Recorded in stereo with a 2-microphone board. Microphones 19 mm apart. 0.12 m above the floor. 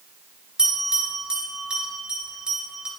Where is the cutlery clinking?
I don't hear cutlery clinking.